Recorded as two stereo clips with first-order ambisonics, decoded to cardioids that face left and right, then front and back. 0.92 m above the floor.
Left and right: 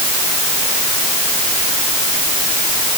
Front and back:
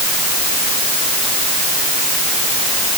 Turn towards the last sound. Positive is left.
No sound to turn to.